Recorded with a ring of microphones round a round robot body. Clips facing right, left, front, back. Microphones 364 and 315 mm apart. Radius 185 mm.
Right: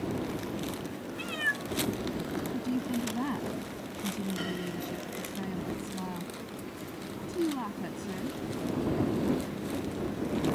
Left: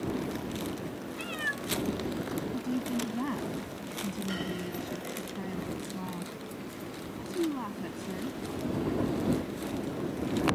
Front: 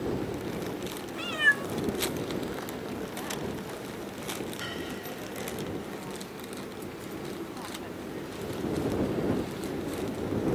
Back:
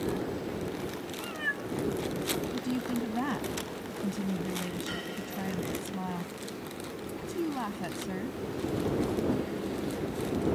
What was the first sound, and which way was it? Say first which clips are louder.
A cat meowing: even, front 3 dB; 5° right.